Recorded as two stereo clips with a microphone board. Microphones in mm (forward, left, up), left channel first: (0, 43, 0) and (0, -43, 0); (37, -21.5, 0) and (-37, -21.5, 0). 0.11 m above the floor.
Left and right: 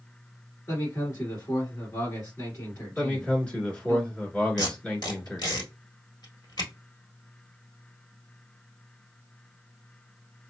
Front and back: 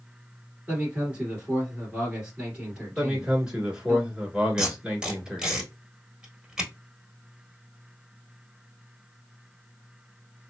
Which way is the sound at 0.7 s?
115° left.